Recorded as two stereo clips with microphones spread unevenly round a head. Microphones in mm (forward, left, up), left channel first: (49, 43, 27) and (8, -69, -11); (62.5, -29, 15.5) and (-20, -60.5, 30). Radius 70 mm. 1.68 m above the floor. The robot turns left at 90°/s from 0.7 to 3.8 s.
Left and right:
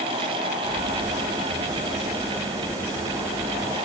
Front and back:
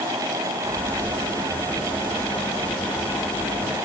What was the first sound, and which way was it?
Only background noise.